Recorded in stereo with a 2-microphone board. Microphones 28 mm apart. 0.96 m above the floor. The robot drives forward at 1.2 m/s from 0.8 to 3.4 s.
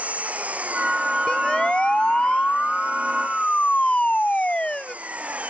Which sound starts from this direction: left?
A siren, at 1.3 s.